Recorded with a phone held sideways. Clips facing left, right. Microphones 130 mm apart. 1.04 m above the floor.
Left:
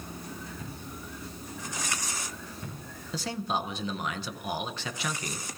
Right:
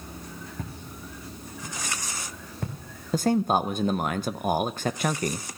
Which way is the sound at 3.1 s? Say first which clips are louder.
Right 9 dB; 50° right (ahead or behind).